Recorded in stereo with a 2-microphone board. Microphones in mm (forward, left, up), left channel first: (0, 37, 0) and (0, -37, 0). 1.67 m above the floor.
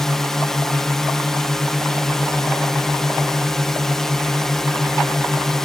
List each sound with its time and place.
0.0 s a drone: 5° left (ahead or behind)